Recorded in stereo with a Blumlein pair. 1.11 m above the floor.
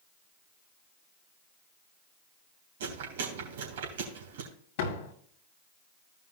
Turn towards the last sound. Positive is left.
turn(degrees=45)